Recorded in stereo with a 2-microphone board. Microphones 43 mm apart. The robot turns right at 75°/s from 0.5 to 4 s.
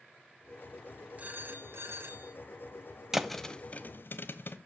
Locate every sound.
1.2 s a phone ringing: 150° right, 2 m; by 2.3 s 60° right, 2 m
3.1 s a thud: 10° right (ahead or behind), 1.1 m; by 4.6 s 55° left (ahead or behind), 1.1 m